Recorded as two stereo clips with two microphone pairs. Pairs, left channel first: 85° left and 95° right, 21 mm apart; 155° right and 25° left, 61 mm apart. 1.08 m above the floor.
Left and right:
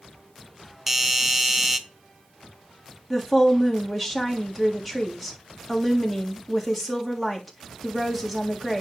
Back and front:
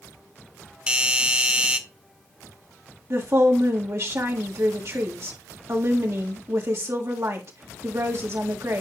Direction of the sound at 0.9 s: 30° right.